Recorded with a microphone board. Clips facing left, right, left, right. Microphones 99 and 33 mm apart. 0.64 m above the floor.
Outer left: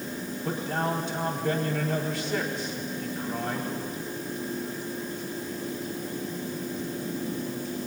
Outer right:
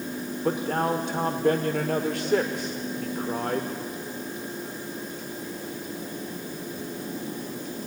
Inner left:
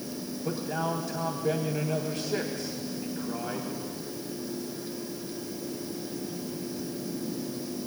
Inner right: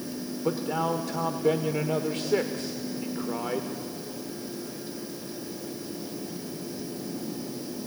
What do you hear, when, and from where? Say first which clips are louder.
0.4 s a man speaking: outer right 4 dB, inner right 4 dB; 60° right (ahead or behind), 1.4 m